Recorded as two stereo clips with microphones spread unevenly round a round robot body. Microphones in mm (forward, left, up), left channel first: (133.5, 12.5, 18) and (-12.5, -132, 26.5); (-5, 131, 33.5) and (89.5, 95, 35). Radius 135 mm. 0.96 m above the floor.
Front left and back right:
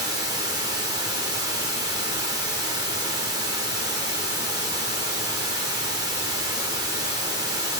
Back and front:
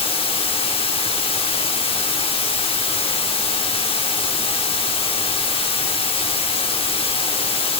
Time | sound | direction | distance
0.0 | running water | 150° left | 0.8 m